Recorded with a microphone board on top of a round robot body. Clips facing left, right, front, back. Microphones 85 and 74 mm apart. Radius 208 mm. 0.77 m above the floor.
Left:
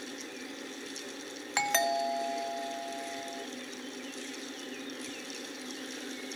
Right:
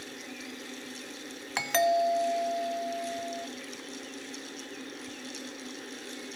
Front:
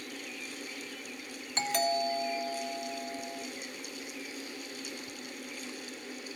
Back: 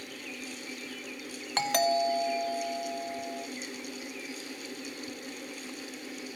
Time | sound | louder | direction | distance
1.6 | a doorbell | right 4 dB, back 4 dB | straight behind | 2.0 m